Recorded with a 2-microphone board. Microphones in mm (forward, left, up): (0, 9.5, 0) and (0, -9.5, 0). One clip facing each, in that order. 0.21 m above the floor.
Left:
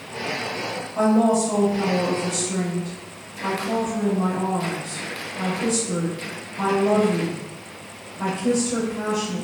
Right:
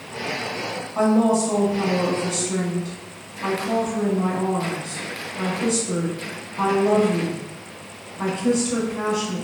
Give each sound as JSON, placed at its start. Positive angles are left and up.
{"t": 0.9, "sound": "a woman speaking", "side_deg": -40, "distance_m": 1.5}